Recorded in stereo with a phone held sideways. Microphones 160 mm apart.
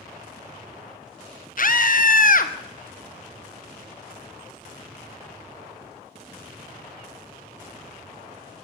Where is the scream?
60° left (ahead or behind), 1.3 m.